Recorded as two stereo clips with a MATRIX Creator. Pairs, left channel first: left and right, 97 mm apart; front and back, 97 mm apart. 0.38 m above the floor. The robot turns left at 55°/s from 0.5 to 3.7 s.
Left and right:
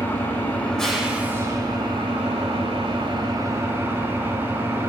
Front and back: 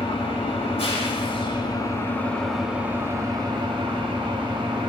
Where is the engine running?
25° left, 0.7 m; by 4.9 s 155° right, 0.7 m.